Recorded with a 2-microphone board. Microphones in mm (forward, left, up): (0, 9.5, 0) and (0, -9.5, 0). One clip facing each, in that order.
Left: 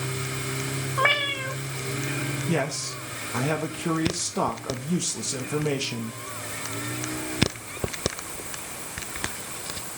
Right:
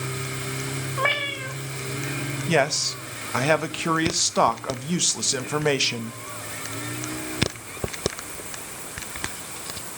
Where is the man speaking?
50° right (ahead or behind), 0.9 m.